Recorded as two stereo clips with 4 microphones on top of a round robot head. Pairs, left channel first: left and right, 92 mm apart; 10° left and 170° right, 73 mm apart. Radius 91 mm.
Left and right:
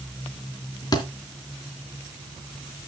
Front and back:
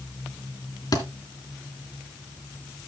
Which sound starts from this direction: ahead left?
A thud, at 0.9 s.